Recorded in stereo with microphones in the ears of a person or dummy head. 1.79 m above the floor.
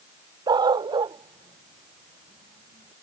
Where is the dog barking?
25° right (ahead or behind).